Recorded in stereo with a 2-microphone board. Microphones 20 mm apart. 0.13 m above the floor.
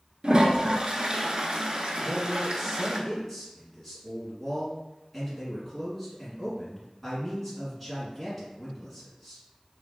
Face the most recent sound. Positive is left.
turn(degrees=-5)  # may be behind; listen again after turning